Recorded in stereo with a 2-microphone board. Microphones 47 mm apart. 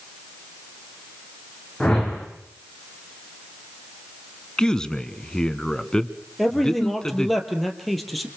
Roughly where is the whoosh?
Centre.